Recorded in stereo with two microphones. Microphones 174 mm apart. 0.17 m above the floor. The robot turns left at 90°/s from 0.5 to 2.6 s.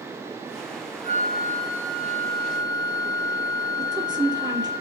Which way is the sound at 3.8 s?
20° right (ahead or behind).